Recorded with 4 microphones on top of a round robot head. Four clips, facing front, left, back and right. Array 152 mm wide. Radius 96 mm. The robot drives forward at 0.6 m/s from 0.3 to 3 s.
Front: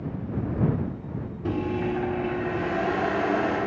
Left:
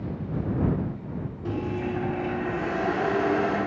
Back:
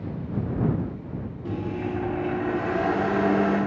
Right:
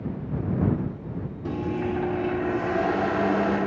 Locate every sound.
1.4 s a microwave: 20° right, 0.7 m; by 3.6 s 165° right, 0.7 m